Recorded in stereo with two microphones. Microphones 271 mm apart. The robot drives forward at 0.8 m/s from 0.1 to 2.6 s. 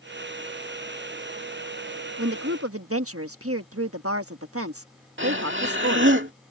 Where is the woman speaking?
55° right (ahead or behind).